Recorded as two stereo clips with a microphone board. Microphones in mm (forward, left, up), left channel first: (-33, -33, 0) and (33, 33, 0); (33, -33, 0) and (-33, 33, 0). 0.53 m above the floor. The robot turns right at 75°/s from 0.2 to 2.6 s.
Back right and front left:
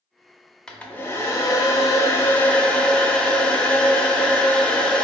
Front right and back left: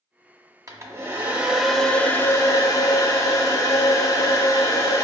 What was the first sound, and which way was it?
A hair dryer, 150° left.